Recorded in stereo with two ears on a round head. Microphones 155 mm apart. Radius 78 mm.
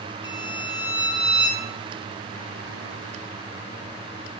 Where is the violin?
30° left (ahead or behind), 2.0 m.